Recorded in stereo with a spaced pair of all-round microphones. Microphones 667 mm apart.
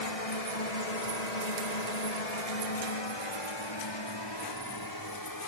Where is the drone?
55° left (ahead or behind); by 5.5 s 30° left (ahead or behind).